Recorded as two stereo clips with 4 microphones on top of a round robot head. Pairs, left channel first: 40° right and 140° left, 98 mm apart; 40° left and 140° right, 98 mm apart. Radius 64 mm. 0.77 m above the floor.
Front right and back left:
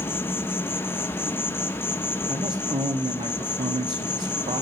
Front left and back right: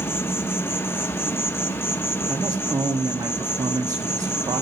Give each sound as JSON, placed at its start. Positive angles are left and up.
{"t": 0.0, "sound": "an insect", "azimuth_deg": 0, "distance_m": 1.1}
{"t": 2.3, "sound": "a man speaking", "azimuth_deg": 165, "distance_m": 1.7}